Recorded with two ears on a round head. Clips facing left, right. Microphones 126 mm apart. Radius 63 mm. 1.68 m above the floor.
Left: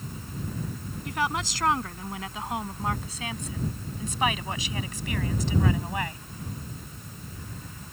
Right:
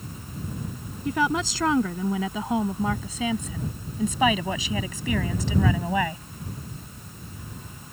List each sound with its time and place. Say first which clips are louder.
1.1 s a woman speaking: right 5 dB; 75° right (ahead or behind); by 6.2 s 70° right (ahead or behind)